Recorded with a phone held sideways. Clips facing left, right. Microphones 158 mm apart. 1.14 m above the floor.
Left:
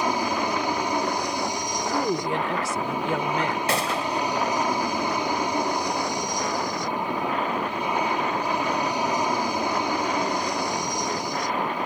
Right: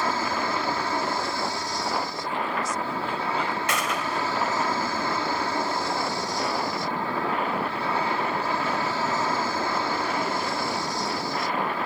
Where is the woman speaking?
80° left.